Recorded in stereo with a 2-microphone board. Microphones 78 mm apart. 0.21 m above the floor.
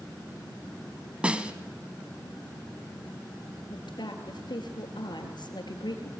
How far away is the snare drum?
About 1.2 m.